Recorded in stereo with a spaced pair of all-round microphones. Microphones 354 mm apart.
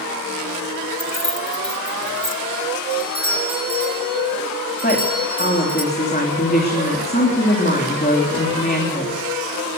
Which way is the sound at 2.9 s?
30° right (ahead or behind).